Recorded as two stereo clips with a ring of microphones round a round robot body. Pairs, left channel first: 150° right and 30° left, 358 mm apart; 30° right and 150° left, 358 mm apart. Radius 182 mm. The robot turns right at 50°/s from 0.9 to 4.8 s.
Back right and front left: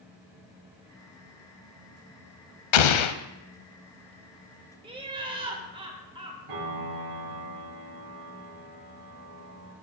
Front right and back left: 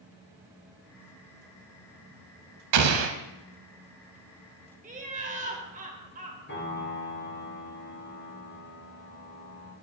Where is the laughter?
95° left, 1.7 m.